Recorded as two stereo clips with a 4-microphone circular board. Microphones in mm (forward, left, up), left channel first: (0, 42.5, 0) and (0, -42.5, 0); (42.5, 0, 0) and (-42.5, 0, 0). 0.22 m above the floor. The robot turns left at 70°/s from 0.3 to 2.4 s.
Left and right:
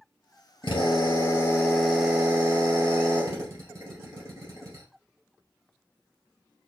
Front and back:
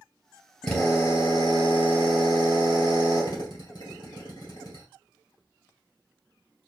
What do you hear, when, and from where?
0.6 s a drill: 85° left, 2 m; by 4.8 s 40° right, 2 m